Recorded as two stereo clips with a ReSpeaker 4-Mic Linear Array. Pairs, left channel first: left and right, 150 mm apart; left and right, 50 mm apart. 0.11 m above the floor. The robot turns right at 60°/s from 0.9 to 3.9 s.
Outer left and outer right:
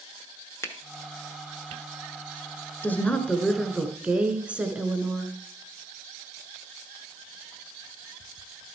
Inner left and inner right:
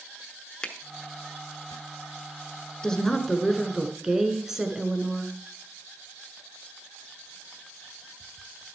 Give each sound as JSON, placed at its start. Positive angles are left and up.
{"t": 0.6, "sound": "a finger snap", "side_deg": 20, "distance_m": 0.9}
{"t": 2.8, "sound": "a woman speaking", "side_deg": 15, "distance_m": 1.1}